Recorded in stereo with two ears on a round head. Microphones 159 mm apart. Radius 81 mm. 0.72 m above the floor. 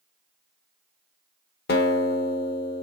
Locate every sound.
1.7 s a guitar: 60° left (ahead or behind), 1.3 m